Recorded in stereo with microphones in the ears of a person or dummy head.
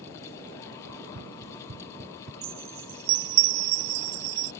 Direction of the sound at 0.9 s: 65° right (ahead or behind).